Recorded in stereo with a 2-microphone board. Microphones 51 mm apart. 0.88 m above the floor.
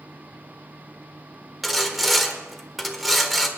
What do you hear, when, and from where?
1.6 s sawing: centre (ahead or behind), 1.5 m